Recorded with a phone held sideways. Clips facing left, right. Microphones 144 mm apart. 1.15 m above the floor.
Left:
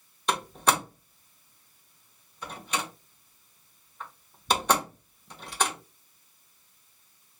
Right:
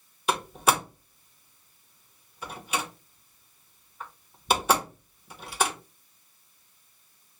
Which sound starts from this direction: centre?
A door slam, at 0.3 s.